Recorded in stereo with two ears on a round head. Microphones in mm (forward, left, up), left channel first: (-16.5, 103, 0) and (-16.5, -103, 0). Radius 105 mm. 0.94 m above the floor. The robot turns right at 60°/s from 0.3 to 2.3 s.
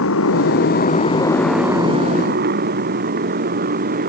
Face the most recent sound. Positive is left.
turn(degrees=-40)  # may be behind; listen again after turning